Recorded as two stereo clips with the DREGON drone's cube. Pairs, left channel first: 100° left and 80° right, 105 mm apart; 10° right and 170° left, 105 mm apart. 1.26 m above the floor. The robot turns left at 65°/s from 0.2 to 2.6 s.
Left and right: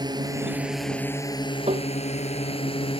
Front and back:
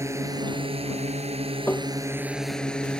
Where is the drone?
130° right; by 3.0 s 70° left.